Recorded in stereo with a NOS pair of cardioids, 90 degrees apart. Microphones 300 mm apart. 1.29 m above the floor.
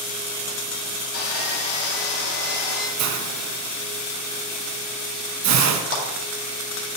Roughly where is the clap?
Ahead left.